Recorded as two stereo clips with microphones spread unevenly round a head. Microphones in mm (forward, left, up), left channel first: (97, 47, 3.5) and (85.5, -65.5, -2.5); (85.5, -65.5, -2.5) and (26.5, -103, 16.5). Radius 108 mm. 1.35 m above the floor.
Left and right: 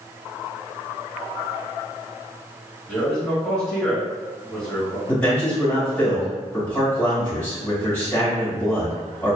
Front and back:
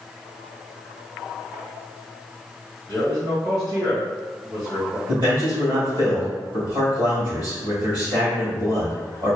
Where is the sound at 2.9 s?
170° left, 1.5 m.